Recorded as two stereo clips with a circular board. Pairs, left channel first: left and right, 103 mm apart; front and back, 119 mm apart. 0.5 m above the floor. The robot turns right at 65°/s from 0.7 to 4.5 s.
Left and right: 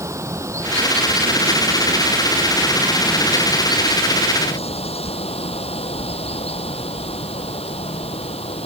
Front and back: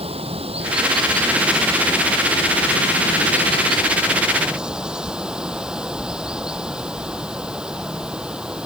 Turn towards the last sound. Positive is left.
turn(degrees=95)